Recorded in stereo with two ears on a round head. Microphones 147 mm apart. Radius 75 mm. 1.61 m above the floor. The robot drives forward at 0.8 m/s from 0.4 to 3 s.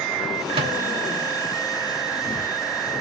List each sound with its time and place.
0.5 s a microwave: 35° right (ahead or behind), 2.5 m